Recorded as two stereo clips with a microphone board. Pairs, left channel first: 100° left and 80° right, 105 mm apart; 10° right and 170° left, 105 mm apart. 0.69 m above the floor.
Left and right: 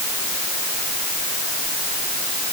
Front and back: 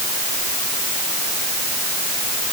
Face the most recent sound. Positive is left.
No sound to turn to.